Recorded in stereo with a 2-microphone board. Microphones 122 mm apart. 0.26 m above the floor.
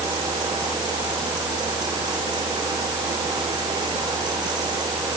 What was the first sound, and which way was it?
Only background noise.